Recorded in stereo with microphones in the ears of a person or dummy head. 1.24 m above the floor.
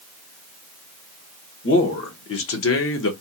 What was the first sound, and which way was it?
A man speaking, 70° left (ahead or behind).